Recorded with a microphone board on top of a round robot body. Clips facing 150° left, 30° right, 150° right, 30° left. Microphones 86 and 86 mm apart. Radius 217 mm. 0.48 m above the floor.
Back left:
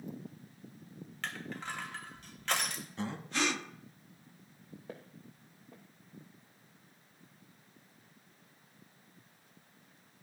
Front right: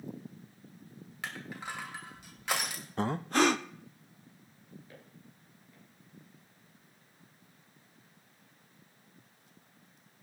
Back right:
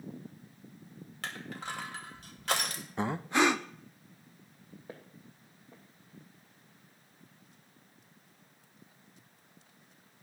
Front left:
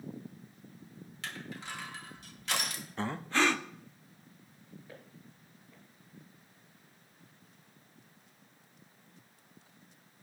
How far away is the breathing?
About 0.5 m.